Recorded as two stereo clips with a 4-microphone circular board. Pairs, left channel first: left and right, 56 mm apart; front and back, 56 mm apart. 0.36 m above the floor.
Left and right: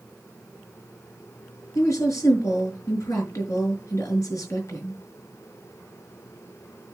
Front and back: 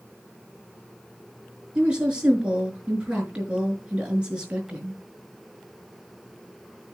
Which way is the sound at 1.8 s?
110° left.